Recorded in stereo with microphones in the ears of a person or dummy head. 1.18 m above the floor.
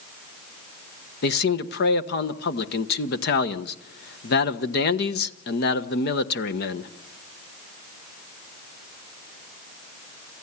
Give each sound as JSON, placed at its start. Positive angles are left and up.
{"t": 1.2, "sound": "a man speaking", "side_deg": 55, "distance_m": 1.2}